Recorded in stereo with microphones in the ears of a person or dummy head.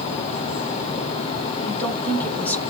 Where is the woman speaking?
10° left (ahead or behind), 3 m.